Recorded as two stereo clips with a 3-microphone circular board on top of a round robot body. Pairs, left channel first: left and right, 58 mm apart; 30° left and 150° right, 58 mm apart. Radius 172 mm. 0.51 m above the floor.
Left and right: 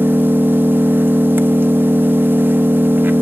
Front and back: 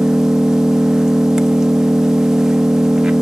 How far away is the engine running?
About 1.1 m.